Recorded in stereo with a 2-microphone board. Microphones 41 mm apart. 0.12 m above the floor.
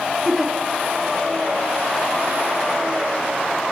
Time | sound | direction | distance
0.2 | a giggle | 5° right (ahead or behind) | 1.4 m